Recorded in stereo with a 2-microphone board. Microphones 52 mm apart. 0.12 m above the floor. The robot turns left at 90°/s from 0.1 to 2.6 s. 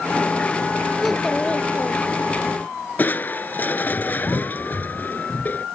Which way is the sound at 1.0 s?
170° right.